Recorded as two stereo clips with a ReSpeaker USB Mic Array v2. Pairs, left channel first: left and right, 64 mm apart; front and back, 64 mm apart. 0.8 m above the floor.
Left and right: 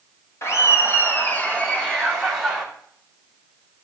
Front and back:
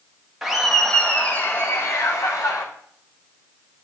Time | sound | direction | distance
0.4 | laughter | 100° left | 1.0 m